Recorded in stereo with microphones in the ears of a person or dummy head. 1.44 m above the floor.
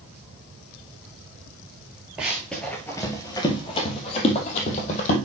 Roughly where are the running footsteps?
Centre.